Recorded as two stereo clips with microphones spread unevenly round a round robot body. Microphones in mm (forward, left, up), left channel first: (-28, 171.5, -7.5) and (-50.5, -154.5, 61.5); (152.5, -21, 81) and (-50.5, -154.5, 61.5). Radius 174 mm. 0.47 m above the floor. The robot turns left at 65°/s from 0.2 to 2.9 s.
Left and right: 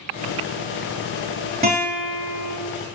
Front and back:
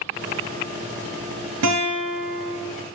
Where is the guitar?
160° right, 3 m; by 2.5 s 140° left, 3 m.